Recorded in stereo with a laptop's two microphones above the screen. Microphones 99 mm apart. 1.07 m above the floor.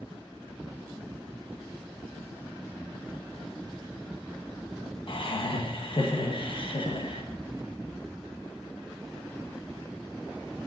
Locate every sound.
5.1 s laughter: 55° left (ahead or behind), 1.1 m